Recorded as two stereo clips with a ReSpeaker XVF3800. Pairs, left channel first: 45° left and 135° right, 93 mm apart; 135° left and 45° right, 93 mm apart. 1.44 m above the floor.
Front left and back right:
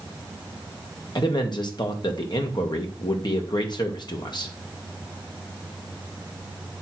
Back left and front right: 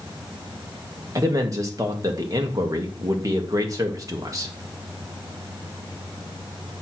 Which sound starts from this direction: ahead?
A man speaking, at 1.1 s.